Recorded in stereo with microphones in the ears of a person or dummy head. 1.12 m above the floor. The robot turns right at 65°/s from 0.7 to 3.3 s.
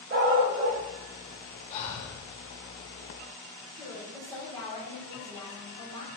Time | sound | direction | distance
0.1 | a dog barking | 35° right (ahead or behind) | 1.2 m
1.7 | breathing | 30° left | 1.8 m
3.7 | a woman speaking | 20° left (ahead or behind) | 2.5 m